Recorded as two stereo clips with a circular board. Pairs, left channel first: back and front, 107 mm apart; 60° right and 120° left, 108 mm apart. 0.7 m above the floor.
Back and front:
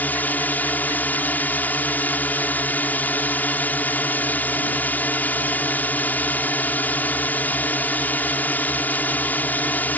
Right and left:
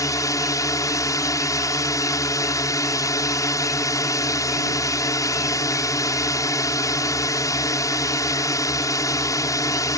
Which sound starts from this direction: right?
A drone, at 0.0 s.